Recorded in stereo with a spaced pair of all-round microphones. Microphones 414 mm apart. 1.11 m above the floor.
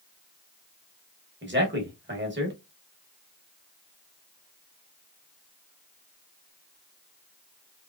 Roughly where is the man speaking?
Right.